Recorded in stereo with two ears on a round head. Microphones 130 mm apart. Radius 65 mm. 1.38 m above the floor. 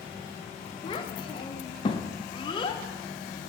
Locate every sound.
0.8 s a child speaking: 30° left (ahead or behind), 0.6 m